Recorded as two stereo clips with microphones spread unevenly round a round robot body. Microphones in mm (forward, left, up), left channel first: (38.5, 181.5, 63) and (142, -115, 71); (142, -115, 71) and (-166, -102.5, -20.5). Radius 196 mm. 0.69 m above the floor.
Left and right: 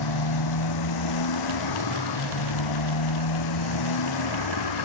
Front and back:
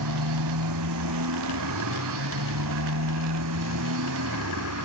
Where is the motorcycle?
135° left; by 4.9 s 125° left.